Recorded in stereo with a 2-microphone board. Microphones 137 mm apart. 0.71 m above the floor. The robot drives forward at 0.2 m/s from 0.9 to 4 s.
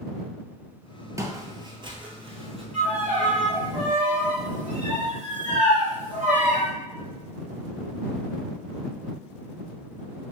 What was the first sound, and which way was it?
Footsteps, 25° right (ahead or behind).